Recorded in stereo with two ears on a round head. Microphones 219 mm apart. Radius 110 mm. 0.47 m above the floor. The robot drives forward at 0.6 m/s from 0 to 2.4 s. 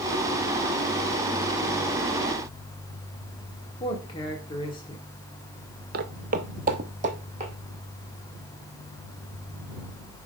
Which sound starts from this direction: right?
Footsteps, at 5.9 s.